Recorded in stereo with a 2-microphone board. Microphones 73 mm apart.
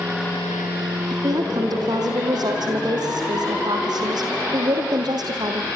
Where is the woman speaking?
65° right (ahead or behind), 5.5 m.